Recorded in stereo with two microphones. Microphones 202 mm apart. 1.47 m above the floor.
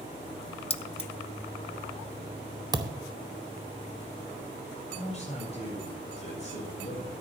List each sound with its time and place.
0.7 s keys jangling: 30° left (ahead or behind), 0.5 m
2.7 s a thud: 20° right (ahead or behind), 0.9 m
4.9 s a man speaking: 35° left (ahead or behind), 5.5 m